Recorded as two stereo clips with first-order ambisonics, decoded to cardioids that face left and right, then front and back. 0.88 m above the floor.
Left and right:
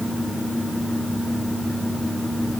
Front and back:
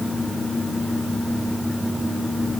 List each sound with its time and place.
Only background noise.